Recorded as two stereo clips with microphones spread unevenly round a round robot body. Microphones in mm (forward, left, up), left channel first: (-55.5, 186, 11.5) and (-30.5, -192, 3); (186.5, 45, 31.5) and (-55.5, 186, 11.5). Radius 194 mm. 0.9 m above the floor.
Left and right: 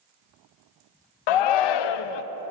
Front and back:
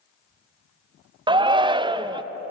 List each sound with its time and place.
1.3 s a shout: 75° left, 0.5 m